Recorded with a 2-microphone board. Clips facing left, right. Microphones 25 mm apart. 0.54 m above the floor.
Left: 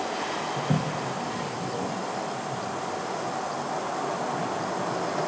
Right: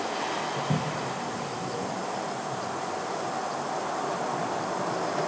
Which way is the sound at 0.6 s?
80° left.